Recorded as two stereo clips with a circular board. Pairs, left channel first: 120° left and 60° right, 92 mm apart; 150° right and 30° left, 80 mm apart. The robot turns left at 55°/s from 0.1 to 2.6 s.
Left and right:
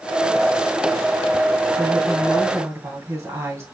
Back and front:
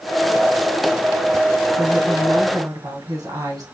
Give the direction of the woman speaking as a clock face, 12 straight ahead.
10 o'clock.